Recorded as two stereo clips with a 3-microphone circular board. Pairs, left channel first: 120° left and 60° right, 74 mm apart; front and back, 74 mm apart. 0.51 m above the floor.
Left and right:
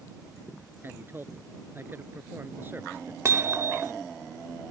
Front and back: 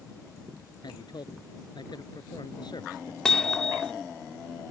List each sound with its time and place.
0.8 s a man speaking: straight ahead
3.2 s hammering: 75° right